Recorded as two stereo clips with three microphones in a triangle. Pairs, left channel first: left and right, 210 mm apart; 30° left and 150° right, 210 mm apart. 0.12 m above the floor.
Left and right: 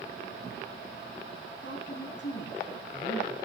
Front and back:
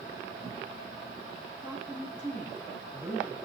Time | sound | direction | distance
1.6 | a woman speaking | 125° left | 8 m